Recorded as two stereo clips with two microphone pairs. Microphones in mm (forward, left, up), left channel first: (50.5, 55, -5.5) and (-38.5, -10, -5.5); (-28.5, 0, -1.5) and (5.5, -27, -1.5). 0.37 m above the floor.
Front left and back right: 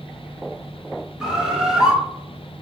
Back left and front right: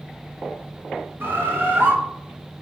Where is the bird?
60° right, 3 m.